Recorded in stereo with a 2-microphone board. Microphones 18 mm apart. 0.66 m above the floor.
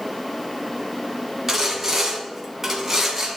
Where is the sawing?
25° right (ahead or behind), 2 m.